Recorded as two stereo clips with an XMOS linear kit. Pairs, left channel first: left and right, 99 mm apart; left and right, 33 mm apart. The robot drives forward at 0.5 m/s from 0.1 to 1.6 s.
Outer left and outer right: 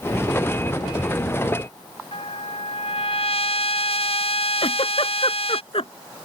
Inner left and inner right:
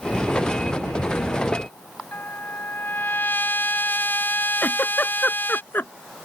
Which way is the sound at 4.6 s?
70° left (ahead or behind).